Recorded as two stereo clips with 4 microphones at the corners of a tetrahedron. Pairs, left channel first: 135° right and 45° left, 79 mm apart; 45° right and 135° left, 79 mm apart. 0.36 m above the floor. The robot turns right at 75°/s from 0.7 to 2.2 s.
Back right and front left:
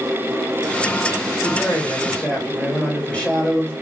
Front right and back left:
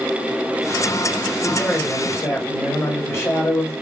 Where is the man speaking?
130° right, 1.1 m; by 3.7 s 70° right, 1.1 m.